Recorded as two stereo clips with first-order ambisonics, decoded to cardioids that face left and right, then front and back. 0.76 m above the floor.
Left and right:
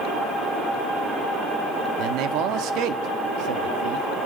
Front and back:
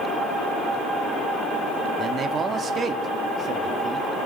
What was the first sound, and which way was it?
A man speaking, 115° right.